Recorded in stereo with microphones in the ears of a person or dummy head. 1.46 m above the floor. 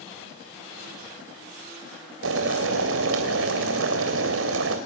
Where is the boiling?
70° right (ahead or behind), 3 m.